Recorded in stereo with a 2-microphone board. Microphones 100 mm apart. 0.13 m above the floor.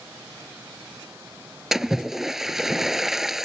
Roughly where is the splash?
Centre.